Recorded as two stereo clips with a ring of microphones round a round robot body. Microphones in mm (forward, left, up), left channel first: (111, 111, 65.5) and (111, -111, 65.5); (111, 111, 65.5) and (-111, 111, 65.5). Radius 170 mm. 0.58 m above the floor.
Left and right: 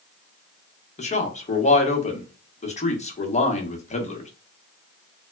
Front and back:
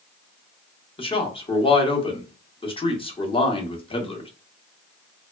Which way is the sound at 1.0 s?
50° left.